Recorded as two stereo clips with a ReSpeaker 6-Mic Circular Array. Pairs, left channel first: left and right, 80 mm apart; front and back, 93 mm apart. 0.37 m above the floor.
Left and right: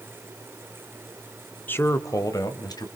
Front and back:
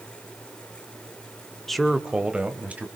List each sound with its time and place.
1.7 s a man speaking: 80° left, 0.8 m; by 2.9 s 110° left, 2 m